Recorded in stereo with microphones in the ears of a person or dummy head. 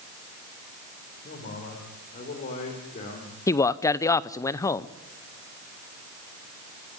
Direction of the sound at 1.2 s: 50° left (ahead or behind).